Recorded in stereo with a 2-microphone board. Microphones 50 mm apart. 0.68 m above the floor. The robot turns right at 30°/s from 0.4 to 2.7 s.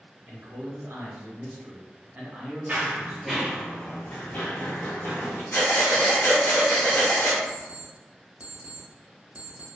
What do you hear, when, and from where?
0.3 s a man speaking: 90° right, 0.9 m; by 3.6 s 25° right, 0.9 m
2.7 s running footsteps: 30° right (ahead or behind), 0.8 m; by 5.4 s 60° left (ahead or behind), 1.4 m
5.5 s breathing: 50° left (ahead or behind), 1.0 m
7.5 s an alarm clock: 30° right (ahead or behind), 0.7 m